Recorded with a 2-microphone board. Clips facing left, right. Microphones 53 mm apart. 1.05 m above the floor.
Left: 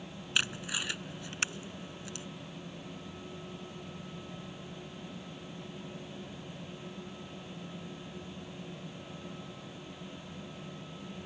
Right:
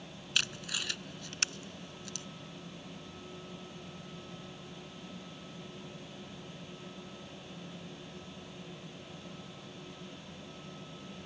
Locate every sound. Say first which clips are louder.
0.3 s tape being pulled: left 2 dB; 20° left (ahead or behind)